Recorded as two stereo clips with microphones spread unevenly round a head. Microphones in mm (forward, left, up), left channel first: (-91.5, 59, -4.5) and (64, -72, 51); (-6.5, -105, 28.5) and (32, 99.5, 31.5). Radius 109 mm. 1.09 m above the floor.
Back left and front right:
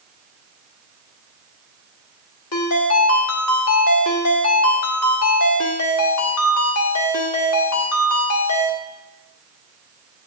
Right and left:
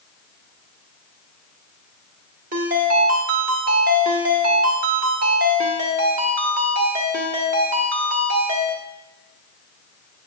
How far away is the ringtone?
About 1.5 m.